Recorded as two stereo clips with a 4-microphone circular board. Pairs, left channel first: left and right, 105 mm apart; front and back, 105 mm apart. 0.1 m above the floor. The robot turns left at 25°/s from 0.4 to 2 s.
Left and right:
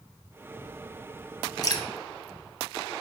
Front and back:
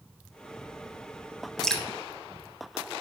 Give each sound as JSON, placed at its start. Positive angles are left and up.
{"t": 1.6, "sound": "dripping", "azimuth_deg": 80, "distance_m": 1.2}